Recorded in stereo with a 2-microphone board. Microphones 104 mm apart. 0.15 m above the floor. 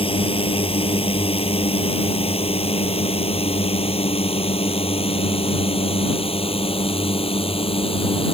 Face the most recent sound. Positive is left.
turn(degrees=65)  # may be behind; listen again after turning